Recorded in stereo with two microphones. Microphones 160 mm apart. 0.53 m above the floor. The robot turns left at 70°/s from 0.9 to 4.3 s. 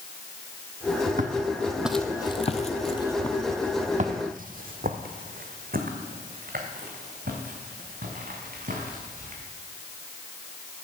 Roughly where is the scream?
I don't hear a scream.